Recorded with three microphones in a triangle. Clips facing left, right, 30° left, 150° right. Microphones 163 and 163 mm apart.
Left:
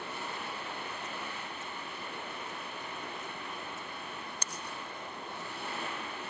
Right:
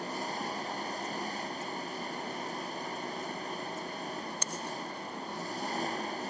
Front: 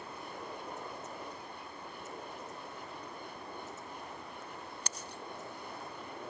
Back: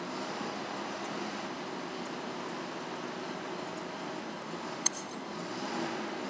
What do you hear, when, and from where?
0.0 s an engine running: 140° right